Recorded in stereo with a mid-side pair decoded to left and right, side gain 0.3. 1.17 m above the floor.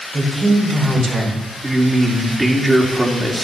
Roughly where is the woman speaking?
Ahead right.